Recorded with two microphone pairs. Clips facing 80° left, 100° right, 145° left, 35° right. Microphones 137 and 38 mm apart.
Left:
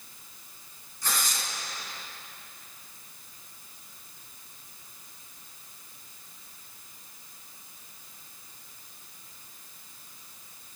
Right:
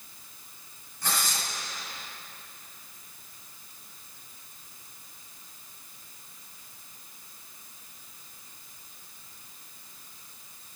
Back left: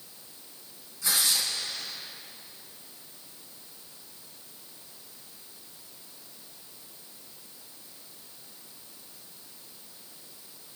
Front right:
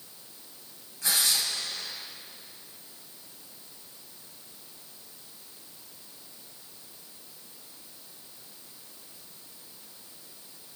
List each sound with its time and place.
1.0 s tearing paper: 70° right, 4.5 m